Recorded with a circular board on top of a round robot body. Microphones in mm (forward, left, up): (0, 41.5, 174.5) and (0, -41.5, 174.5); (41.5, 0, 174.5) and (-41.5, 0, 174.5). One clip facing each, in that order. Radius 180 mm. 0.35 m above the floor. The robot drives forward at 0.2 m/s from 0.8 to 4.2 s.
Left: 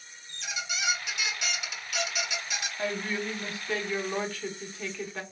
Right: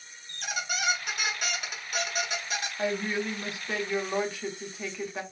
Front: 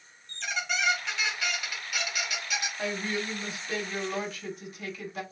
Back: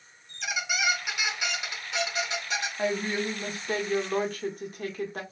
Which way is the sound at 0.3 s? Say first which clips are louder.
Right 3 dB, even; 100° right.